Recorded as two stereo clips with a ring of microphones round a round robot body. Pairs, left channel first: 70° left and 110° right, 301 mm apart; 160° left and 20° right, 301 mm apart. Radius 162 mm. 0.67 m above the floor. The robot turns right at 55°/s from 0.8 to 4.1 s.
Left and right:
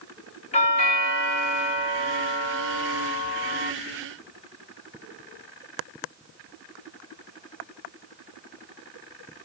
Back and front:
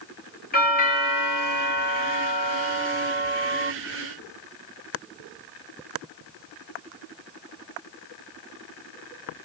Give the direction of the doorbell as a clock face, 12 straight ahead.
8 o'clock.